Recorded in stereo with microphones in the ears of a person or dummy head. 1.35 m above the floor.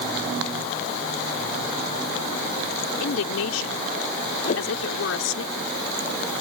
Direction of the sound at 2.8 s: 85° left.